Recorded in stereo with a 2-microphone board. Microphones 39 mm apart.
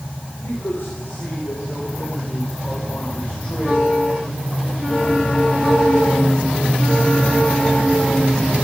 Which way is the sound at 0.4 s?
70° left (ahead or behind).